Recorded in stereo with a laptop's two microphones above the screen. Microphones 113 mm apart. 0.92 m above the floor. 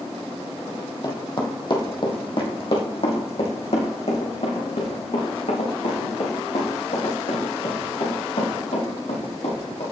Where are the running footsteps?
30° left (ahead or behind), 1.6 m; by 9.8 s 80° left, 6 m.